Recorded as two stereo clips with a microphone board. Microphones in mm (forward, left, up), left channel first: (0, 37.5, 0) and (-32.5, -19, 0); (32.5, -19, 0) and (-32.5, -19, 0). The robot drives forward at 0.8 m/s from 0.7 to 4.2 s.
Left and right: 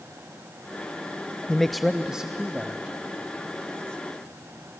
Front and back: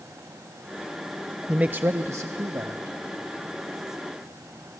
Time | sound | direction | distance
1.5 | a man speaking | 125° left | 0.5 m